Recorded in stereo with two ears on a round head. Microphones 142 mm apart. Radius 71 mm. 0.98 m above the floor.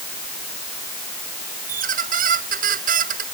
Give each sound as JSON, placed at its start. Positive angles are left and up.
{"t": 1.7, "sound": "a squeak", "side_deg": -60}